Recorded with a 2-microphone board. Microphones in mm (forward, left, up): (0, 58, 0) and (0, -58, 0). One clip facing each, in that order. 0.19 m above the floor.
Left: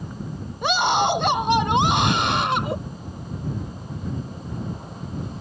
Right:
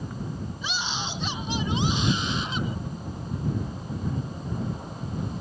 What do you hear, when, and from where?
0.6 s a scream: 60° left (ahead or behind); by 2.8 s 70° left (ahead or behind)